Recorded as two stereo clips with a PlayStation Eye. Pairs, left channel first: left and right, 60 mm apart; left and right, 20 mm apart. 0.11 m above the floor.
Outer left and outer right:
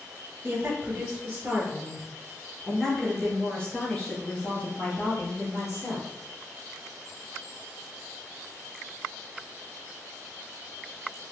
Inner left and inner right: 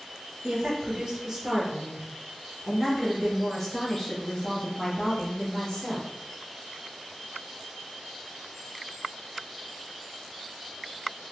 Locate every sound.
0.4 s a woman speaking: 40° right (ahead or behind), 1.8 m; by 6.1 s 50° left (ahead or behind), 2 m